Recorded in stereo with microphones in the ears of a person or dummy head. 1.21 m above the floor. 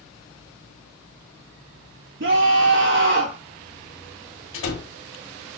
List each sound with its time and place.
2.2 s a scream: 55° right (ahead or behind), 0.6 m
4.5 s a door slam: 80° left, 1.6 m